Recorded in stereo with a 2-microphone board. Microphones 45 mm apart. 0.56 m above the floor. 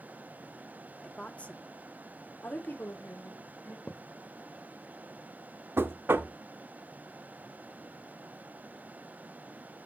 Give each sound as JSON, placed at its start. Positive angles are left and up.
{"t": 1.0, "sound": "a woman speaking", "side_deg": 20, "distance_m": 1.2}
{"t": 3.9, "sound": "a thud", "side_deg": 20, "distance_m": 1.2}
{"t": 5.8, "sound": "knocking", "side_deg": -55, "distance_m": 0.8}